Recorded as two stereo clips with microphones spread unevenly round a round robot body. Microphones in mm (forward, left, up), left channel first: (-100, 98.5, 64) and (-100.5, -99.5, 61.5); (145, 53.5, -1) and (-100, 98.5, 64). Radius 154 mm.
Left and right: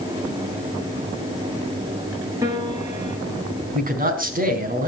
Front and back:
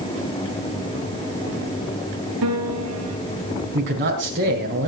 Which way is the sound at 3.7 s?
135° right.